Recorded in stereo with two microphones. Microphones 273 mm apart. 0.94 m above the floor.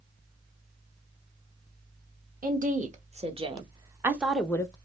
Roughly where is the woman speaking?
Right.